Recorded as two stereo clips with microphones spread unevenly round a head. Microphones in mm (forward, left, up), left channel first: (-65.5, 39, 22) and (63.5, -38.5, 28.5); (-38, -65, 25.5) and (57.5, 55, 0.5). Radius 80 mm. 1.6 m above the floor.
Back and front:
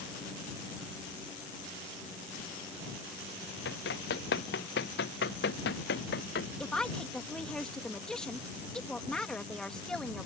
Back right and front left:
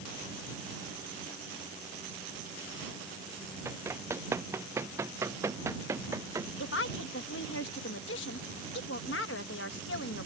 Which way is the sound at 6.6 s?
125° right.